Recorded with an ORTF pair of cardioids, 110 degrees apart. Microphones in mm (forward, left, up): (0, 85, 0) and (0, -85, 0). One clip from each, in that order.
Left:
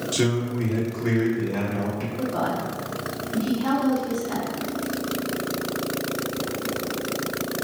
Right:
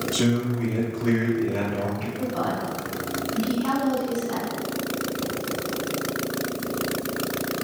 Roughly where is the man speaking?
Ahead left.